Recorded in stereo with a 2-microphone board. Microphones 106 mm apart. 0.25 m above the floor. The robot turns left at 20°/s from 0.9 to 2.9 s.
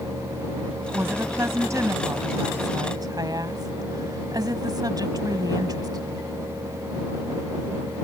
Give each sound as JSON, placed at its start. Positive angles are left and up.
{"t": 0.9, "sound": "a woman speaking", "azimuth_deg": -35}